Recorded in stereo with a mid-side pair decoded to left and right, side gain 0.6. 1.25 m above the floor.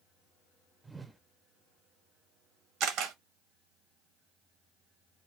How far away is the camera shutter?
About 0.9 m.